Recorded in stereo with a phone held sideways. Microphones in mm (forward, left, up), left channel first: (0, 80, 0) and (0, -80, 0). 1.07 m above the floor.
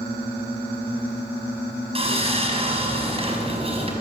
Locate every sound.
1.9 s sawing: 35° right (ahead or behind), 6 m